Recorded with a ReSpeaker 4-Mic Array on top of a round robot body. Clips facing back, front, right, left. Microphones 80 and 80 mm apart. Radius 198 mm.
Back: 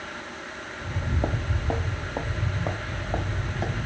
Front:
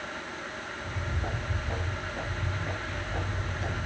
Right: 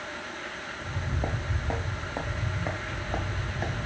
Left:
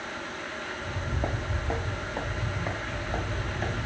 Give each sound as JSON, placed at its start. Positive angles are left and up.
{"t": 0.8, "sound": "footsteps", "azimuth_deg": 180, "distance_m": 0.9}